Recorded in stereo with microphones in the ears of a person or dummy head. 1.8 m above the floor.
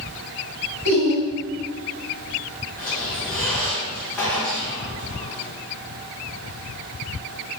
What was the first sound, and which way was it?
Laughter, 60° right (ahead or behind).